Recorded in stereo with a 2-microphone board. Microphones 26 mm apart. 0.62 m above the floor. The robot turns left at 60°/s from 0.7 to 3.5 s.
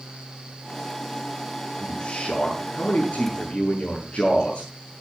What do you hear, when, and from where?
1.8 s a man speaking: 140° left, 7.5 m; by 4.7 s 40° left, 7.5 m